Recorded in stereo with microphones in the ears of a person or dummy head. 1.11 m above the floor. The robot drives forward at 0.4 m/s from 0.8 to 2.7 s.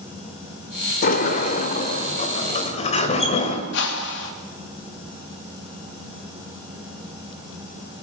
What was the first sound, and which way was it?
A sliding door, 40° left (ahead or behind).